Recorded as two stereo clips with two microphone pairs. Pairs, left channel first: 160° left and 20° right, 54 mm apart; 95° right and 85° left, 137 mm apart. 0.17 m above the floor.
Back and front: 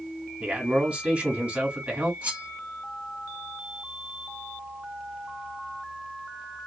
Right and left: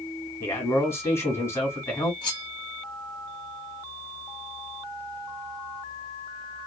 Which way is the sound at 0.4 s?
50° right.